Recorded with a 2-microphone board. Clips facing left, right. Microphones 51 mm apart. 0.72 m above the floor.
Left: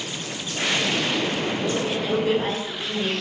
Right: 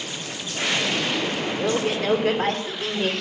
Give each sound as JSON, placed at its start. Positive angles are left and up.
{"t": 1.6, "sound": "a man speaking", "side_deg": -65, "distance_m": 2.5}